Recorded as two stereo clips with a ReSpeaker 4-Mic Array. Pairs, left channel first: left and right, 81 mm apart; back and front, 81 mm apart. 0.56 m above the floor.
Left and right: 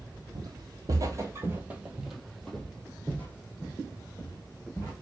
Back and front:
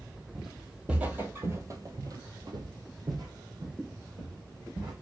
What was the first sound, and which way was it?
Footsteps, 90° right.